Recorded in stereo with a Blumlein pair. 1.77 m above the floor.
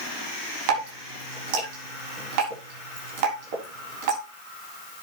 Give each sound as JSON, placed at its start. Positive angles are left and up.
{"t": 0.7, "sound": "dripping", "azimuth_deg": -45, "distance_m": 6.0}